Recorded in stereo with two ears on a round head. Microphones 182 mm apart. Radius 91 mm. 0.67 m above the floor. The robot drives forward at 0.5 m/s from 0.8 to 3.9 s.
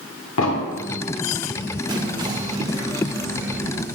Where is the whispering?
20° right (ahead or behind), 0.6 m; by 3.9 s 10° right (ahead or behind), 1.1 m.